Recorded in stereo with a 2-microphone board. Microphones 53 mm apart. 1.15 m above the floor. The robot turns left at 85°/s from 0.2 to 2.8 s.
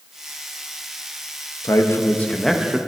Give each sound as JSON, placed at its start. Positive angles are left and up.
{"t": 1.6, "sound": "a man speaking", "azimuth_deg": 70, "distance_m": 1.0}